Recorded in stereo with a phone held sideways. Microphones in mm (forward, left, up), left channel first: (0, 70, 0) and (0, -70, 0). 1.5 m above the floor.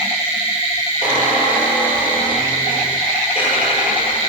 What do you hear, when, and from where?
1.0 s a squeak: 10° right (ahead or behind), 9.5 m